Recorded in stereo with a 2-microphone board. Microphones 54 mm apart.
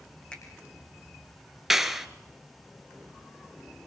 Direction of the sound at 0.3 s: 20° left (ahead or behind).